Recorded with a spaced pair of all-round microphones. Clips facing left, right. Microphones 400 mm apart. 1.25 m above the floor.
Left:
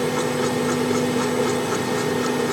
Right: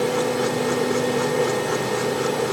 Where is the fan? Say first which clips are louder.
Right 1 dB; 30° left (ahead or behind), 1.0 m.